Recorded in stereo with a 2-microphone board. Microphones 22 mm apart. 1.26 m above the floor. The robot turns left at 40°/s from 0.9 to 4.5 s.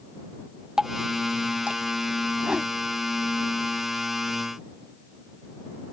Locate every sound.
0.8 s dripping: 30° right (ahead or behind); by 1.8 s 65° right (ahead or behind)
2.4 s a whoosh: 60° right (ahead or behind); by 2.7 s 70° right (ahead or behind)